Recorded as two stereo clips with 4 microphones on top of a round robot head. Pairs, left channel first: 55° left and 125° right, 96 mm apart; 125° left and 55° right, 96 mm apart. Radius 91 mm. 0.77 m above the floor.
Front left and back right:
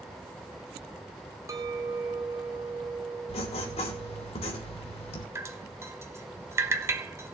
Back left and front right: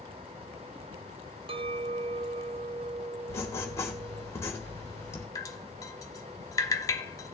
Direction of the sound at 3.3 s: 65° left.